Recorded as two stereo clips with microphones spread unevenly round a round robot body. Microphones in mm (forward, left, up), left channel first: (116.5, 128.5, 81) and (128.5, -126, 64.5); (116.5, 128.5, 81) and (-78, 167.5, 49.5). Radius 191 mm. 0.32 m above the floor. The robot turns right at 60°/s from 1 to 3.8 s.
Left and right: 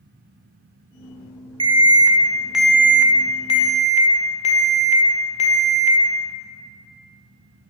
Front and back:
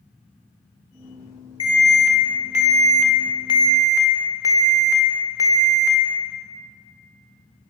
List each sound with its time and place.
1.6 s an alarm: 70° right, 1.3 m; by 6.0 s 65° left, 1.3 m